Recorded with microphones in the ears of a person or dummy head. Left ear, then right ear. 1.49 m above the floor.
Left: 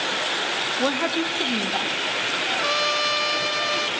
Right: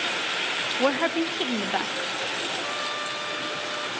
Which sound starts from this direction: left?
A trumpet, at 2.5 s.